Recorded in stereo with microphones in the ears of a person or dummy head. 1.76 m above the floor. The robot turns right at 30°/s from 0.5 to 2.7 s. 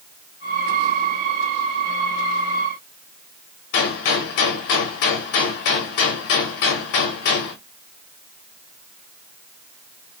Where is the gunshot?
60° left (ahead or behind), 0.7 m.